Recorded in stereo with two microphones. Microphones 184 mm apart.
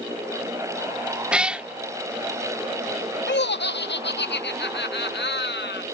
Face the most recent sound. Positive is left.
turn(degrees=70)  # may be behind; listen again after turning